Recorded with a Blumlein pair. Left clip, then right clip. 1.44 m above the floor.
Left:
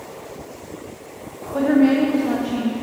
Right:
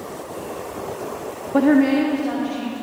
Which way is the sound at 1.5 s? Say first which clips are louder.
Right 1 dB; 30° right.